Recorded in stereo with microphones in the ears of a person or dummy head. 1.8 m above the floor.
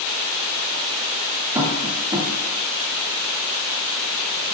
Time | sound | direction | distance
1.6 | tapping | 15° right (ahead or behind) | 1.7 m